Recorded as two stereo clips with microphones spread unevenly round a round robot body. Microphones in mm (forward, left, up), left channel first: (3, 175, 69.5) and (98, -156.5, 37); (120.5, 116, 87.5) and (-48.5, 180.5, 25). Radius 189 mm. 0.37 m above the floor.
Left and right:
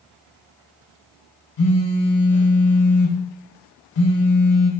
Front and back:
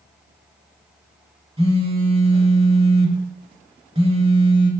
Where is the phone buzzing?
95° left, 1.0 m.